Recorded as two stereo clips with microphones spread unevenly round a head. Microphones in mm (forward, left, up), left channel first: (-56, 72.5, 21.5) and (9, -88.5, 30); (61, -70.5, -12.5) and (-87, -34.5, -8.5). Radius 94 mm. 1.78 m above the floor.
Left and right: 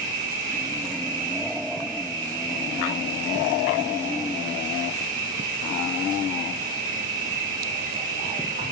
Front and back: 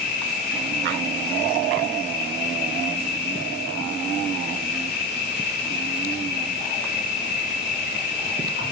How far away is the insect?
About 3 m.